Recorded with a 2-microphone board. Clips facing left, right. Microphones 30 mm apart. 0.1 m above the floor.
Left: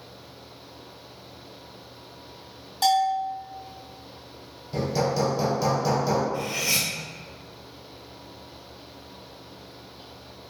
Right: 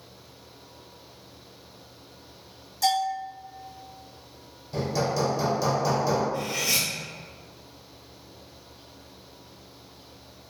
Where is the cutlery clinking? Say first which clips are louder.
Left 1 dB; centre (ahead or behind), 1.2 m.